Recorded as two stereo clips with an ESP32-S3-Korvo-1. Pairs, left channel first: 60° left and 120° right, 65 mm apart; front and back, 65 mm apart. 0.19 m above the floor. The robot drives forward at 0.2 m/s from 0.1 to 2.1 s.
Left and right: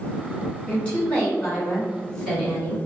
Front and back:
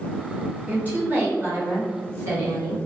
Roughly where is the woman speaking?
Behind left.